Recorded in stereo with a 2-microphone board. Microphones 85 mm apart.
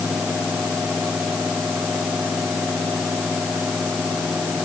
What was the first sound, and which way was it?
Only background noise.